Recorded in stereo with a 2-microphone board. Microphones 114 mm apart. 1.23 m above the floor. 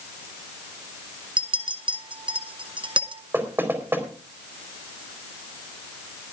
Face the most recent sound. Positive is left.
turn(degrees=-20)  # may be behind; listen again after turning